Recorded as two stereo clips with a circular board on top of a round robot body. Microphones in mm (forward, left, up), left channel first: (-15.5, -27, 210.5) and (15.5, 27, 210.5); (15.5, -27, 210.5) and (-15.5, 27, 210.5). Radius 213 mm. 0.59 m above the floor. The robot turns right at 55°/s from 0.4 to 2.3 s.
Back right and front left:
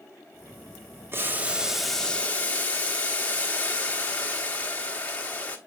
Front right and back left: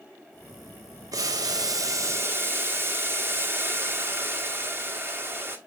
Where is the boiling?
110° left, 1.4 m; by 5.6 s 175° left, 1.4 m.